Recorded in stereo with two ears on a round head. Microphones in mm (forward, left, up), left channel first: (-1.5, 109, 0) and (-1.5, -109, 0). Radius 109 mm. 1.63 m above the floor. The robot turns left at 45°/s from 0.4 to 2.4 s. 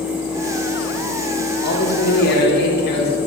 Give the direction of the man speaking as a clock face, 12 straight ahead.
9 o'clock.